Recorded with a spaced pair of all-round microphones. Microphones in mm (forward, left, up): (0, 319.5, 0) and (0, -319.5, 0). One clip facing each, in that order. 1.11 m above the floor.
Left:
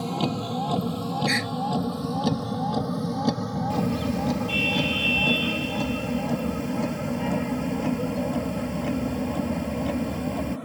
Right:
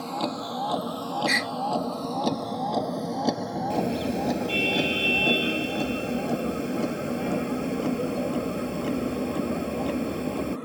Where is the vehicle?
60° left (ahead or behind); by 10.7 s 15° left (ahead or behind).